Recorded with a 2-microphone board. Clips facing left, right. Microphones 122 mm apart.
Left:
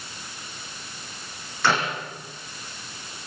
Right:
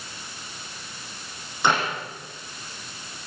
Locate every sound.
1.6 s a clap: 15° right (ahead or behind), 9 m